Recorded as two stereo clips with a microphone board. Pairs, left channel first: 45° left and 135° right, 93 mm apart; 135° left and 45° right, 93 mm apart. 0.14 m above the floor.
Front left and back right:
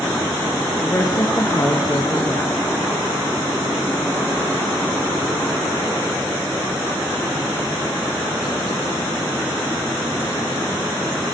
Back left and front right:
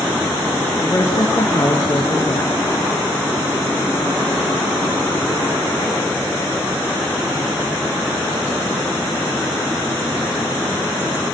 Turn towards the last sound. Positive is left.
turn(degrees=85)